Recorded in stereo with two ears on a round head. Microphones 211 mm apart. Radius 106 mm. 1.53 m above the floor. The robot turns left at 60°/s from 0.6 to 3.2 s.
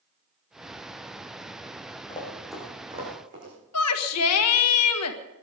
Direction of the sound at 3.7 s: 75° left (ahead or behind).